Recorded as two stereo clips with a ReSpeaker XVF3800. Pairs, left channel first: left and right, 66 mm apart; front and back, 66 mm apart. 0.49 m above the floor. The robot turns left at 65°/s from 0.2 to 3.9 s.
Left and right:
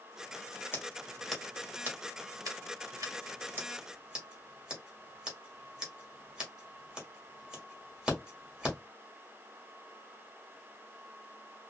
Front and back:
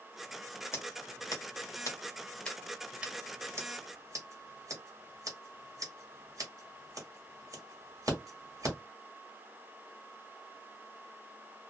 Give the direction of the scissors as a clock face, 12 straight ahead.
11 o'clock.